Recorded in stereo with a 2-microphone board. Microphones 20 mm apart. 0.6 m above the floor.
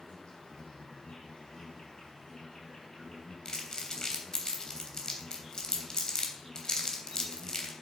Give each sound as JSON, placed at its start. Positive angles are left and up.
{"t": 0.0, "sound": "an insect", "side_deg": 55, "distance_m": 6.0}
{"t": 3.5, "sound": "crumpling", "side_deg": 40, "distance_m": 3.0}